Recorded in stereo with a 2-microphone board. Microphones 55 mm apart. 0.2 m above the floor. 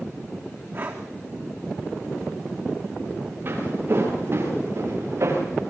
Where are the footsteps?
40° right (ahead or behind), 9 m; by 5.4 s 55° right (ahead or behind), 8 m.